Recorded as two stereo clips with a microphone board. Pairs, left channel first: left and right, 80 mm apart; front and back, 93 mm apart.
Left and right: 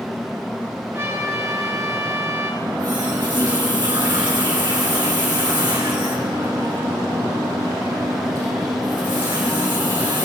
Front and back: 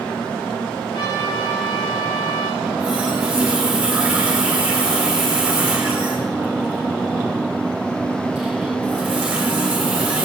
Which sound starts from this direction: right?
A running tap, at 2.6 s.